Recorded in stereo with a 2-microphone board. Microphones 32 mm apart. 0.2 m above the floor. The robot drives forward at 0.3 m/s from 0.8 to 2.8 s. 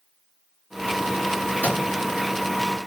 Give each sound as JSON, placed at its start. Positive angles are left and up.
{"t": 1.6, "sound": "a microwave", "side_deg": 60, "distance_m": 2.5}